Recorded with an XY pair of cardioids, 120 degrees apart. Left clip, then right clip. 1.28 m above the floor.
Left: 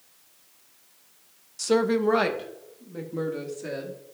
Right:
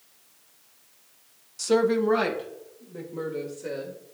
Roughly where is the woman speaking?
Ahead.